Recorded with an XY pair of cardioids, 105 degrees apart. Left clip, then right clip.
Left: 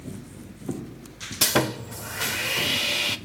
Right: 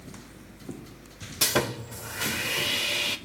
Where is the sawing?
25° left, 0.7 m.